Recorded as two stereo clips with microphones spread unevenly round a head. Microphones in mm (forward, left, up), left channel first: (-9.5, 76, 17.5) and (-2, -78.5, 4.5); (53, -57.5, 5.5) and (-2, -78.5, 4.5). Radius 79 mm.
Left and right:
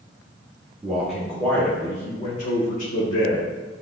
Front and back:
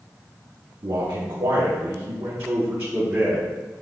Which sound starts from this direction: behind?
A man speaking, at 0.8 s.